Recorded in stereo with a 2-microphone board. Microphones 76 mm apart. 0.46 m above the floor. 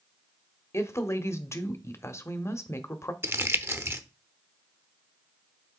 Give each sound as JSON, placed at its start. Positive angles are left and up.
{"t": 0.7, "sound": "a woman speaking", "side_deg": 35, "distance_m": 1.0}
{"t": 3.2, "sound": "crumpling", "side_deg": -35, "distance_m": 0.7}